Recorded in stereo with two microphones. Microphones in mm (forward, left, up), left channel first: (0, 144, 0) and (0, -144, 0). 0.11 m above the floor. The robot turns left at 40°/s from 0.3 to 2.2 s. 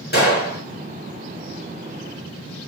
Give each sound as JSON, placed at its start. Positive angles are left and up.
{"t": 0.1, "sound": "a gunshot", "side_deg": 35, "distance_m": 1.8}